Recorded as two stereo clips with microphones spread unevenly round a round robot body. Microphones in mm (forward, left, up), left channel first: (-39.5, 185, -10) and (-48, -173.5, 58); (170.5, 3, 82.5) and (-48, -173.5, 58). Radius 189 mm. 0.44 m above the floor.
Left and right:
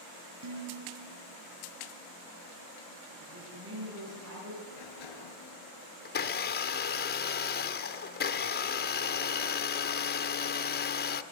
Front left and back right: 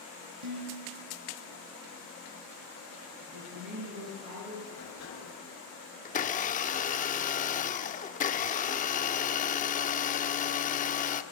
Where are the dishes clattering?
135° right, 7 m.